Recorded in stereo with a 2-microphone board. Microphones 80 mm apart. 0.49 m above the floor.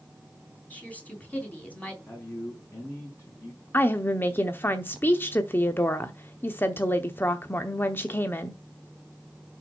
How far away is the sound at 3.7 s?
About 0.8 m.